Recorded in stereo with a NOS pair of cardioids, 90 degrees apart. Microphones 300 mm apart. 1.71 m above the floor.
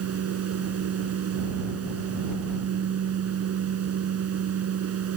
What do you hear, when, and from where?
0.0 s a fan: 60° right